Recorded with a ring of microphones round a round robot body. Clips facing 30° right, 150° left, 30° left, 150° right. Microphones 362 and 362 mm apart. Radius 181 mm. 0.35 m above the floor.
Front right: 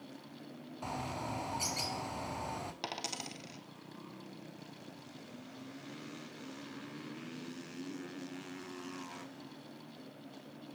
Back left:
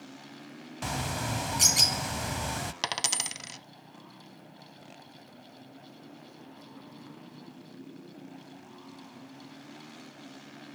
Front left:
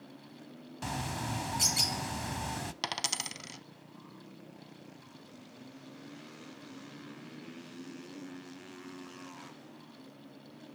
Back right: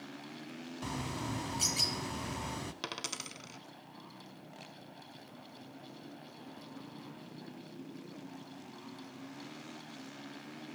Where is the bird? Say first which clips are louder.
Back left 6 dB, front left 1 dB; 105° left, 0.6 m.